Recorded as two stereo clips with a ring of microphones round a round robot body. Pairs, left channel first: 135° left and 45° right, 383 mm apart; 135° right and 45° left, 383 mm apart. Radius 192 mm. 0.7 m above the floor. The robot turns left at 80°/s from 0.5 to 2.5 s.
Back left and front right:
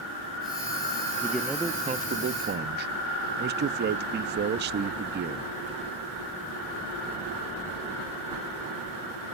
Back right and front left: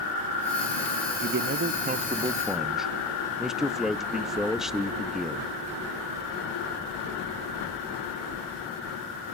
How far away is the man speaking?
About 0.5 m.